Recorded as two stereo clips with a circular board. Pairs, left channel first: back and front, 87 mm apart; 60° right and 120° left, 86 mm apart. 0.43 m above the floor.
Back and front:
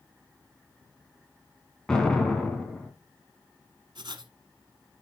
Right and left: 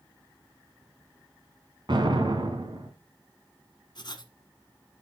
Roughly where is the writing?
Ahead right.